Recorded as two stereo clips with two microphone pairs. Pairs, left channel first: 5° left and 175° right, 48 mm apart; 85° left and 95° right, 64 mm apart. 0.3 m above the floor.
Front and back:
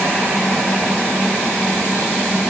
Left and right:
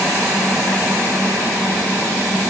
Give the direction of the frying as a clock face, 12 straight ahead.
No frying in this recording.